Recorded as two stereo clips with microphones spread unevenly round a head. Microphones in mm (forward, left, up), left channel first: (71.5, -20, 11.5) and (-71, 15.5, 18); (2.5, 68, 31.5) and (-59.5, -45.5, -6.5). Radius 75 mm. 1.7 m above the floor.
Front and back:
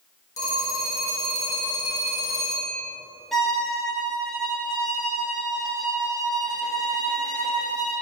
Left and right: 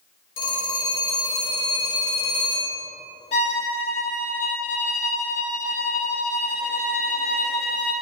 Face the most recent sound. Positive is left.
turn(degrees=75)